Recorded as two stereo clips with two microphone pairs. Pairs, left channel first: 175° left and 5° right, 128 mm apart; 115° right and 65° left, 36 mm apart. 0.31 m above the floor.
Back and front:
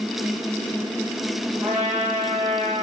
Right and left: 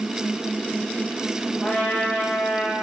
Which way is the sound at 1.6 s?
80° right.